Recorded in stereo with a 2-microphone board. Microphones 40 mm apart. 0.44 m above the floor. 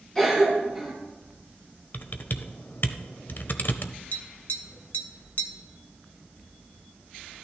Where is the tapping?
45° left (ahead or behind), 0.9 m.